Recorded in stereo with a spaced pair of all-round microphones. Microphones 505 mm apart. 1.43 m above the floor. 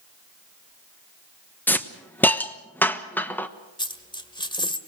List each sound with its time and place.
1.7 s a hiss: 5° left (ahead or behind), 1.0 m
3.8 s a dropped coin: 10° left (ahead or behind), 1.5 m